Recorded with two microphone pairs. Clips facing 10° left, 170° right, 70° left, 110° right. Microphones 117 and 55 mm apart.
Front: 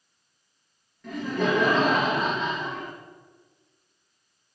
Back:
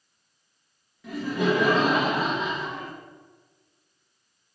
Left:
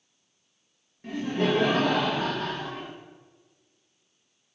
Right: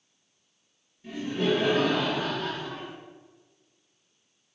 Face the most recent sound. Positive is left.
turn(degrees=105)